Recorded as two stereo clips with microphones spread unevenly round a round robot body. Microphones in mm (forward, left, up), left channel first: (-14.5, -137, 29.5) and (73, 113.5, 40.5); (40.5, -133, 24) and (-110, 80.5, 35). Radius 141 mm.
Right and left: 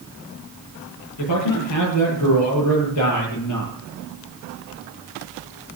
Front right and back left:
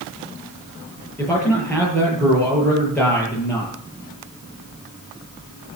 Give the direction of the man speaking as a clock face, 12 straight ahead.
5 o'clock.